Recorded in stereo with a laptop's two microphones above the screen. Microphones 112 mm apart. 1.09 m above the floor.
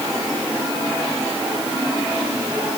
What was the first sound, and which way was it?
Only background noise.